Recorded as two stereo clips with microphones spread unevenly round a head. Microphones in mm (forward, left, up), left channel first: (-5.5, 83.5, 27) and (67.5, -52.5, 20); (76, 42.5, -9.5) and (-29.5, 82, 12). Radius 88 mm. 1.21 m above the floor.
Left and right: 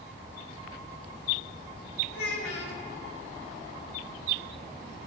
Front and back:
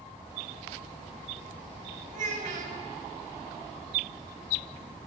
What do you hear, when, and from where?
2.1 s a child speaking: 150° left, 2.5 m